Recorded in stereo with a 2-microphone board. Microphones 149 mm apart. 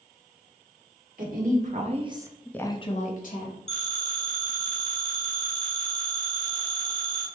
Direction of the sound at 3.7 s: 45° left (ahead or behind).